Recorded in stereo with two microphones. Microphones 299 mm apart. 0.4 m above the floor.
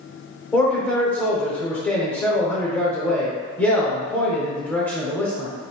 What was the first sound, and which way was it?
A man speaking, 5° left (ahead or behind).